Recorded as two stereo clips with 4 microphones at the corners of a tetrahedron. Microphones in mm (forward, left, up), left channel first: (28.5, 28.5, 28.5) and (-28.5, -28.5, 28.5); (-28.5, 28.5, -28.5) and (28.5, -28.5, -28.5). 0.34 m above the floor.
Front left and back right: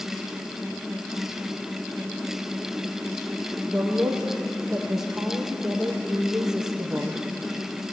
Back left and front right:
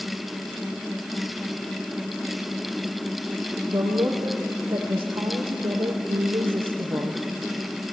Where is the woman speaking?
50° right, 9 m.